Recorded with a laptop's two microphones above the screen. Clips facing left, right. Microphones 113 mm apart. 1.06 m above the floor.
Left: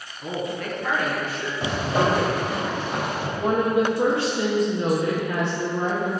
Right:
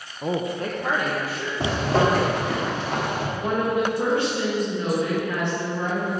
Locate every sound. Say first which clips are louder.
0.2 s a woman speaking: right 3 dB; 40° right (ahead or behind), 0.7 m; by 1.5 s 5° right (ahead or behind), 1.0 m
1.6 s a zipper: right 2 dB; 80° right, 1.7 m
3.4 s a woman speaking: left 3 dB; 25° left (ahead or behind), 0.9 m